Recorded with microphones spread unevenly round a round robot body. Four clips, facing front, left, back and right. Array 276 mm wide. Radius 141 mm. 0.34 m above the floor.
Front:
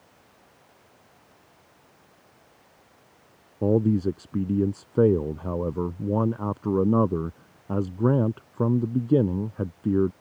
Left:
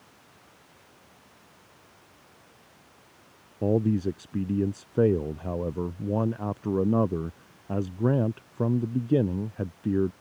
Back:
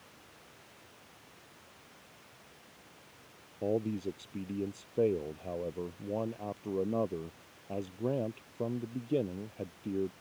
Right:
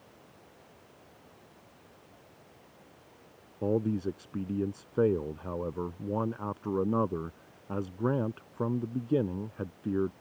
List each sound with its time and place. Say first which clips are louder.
3.6 s a man speaking: left 5 dB, front 11 dB; 25° left